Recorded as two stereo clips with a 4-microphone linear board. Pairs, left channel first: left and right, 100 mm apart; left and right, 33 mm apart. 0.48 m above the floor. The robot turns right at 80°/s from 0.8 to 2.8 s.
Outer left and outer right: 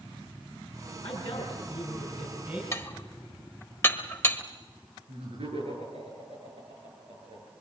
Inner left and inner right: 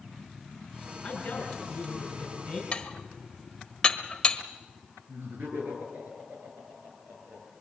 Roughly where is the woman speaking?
Left.